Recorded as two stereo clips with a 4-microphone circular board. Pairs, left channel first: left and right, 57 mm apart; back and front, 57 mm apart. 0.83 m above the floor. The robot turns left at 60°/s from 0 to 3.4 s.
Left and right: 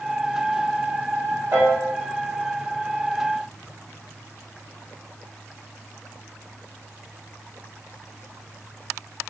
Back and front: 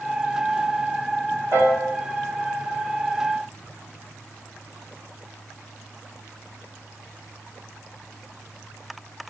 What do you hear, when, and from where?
1.5 s a piano: 45° right, 1.0 m; by 1.8 s 60° right, 1.0 m